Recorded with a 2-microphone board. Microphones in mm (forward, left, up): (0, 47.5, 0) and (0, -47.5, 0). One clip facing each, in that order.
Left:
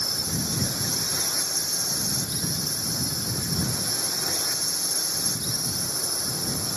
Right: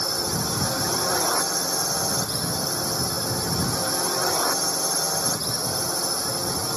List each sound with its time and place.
0.0 s a drone: 65° right (ahead or behind)